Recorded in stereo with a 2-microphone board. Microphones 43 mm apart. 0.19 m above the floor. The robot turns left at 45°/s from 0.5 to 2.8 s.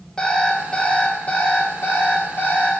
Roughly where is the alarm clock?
Behind.